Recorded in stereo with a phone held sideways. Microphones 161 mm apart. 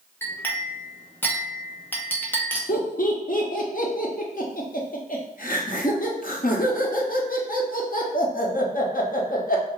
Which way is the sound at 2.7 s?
65° left (ahead or behind).